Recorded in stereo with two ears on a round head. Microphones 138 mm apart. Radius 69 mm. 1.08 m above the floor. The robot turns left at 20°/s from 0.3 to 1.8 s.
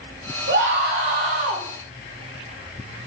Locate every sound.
0.5 s a scream: 80° right, 7 m; by 1.6 s 55° right (ahead or behind), 7 m